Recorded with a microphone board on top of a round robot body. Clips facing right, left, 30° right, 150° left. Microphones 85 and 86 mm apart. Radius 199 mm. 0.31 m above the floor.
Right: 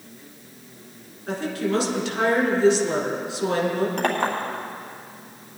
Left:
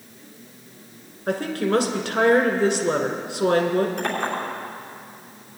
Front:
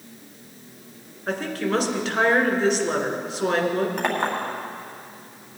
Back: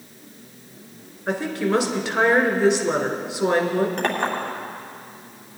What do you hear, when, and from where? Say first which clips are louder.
1.3 s a woman speaking: left 3 dB, back 3 dB; 65° left, 2.0 m
4.0 s a clink: right 2 dB, back 1 dB; 110° right, 2.5 m